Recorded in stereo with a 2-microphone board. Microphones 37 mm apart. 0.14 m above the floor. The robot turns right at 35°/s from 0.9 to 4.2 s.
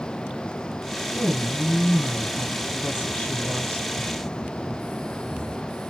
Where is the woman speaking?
50° left, 2 m; by 3.9 s 145° left, 2 m.